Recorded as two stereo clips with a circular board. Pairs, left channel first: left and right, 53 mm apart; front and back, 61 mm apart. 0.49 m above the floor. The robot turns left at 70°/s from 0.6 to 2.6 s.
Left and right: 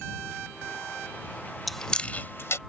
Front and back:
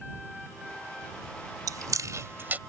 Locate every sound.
1.7 s chewing: straight behind; by 2.6 s 120° left